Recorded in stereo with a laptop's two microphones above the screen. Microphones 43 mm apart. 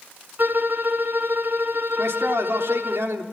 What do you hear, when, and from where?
0.4 s a violin: 55° right (ahead or behind), 1.7 m
2.0 s a man speaking: 75° right (ahead or behind), 3 m